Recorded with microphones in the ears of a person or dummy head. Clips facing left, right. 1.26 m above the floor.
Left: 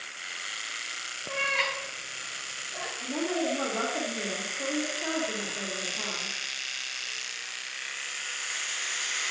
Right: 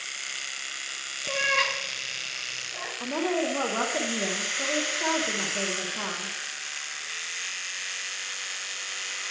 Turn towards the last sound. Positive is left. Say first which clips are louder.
# right 3 dB
turn(degrees=-85)